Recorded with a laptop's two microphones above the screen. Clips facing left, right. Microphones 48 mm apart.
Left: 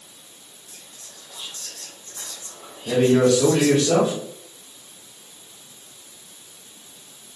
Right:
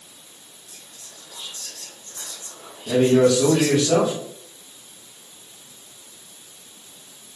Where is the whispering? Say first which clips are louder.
Even; 10° left (ahead or behind), 3.5 m.